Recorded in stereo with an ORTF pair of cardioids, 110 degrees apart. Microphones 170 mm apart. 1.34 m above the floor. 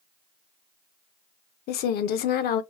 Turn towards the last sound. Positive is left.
turn(degrees=65)